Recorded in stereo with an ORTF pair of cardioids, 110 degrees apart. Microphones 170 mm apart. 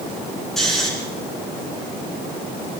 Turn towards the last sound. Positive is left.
turn(degrees=0)